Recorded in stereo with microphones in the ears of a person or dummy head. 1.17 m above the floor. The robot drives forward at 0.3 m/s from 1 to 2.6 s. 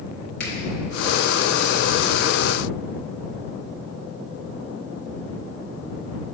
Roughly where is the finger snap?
Left.